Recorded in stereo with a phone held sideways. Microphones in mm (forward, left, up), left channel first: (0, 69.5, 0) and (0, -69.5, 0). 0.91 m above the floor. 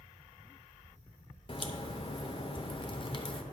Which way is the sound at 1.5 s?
35° left (ahead or behind).